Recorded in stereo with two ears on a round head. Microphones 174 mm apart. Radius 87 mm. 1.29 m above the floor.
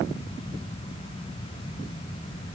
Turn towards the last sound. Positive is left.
No sound to turn to.